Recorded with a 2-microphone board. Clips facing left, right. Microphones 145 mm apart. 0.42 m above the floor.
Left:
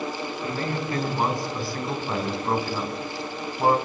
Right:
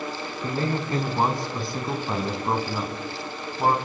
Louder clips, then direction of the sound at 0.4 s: Right 3 dB; 35° right (ahead or behind).